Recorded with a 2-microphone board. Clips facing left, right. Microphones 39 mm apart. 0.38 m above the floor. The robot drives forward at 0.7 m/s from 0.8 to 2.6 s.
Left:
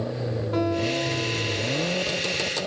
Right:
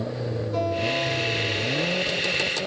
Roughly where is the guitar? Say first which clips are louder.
Even; left.